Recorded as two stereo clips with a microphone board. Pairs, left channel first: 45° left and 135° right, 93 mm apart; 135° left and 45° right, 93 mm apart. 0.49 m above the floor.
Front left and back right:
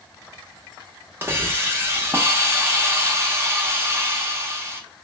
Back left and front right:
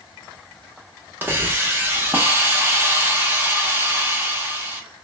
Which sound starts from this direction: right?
A hiss, at 1.2 s.